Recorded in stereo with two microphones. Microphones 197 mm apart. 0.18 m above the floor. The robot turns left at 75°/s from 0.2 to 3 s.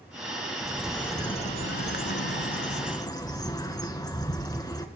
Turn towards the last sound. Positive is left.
turn(degrees=20)